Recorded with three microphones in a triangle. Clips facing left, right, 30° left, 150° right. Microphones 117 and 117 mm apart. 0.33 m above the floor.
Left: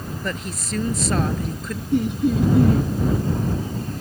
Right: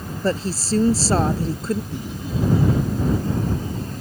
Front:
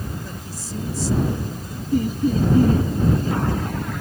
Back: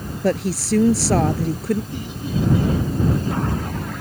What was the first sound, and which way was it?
A woman speaking, 150° right.